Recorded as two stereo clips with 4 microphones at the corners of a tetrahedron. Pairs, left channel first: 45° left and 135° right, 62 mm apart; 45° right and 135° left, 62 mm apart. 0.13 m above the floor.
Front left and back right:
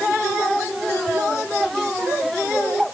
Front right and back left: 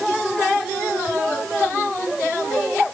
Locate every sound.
Only background noise.